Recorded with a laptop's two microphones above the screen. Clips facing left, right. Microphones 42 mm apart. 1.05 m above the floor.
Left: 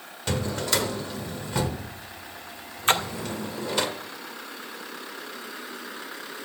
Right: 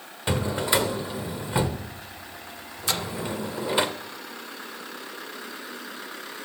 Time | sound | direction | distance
0.3 | a drawer | 20° right (ahead or behind) | 1.1 m
2.9 | a splash | 40° left (ahead or behind) | 0.5 m